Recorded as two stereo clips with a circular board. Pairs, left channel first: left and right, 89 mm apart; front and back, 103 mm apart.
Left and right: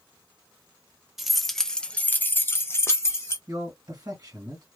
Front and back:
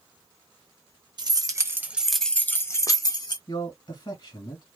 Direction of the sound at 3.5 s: 40° right.